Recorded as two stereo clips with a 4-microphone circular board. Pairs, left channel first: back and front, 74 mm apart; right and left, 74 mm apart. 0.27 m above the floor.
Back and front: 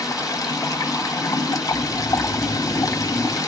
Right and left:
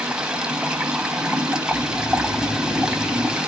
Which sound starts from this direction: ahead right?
Snoring, at 1.6 s.